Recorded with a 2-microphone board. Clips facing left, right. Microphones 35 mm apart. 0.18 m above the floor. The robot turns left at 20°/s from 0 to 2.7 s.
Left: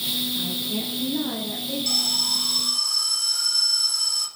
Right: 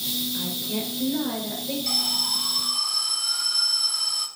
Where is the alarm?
20° right (ahead or behind), 1.1 m; by 4.3 s 25° right (ahead or behind), 1.1 m.